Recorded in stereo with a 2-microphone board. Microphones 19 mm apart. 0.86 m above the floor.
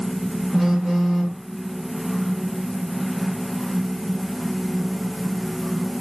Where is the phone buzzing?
15° right (ahead or behind), 1.0 m.